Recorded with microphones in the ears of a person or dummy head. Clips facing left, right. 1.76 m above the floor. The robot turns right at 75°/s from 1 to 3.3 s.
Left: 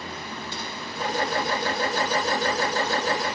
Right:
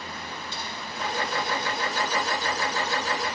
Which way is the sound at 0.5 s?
55° left (ahead or behind).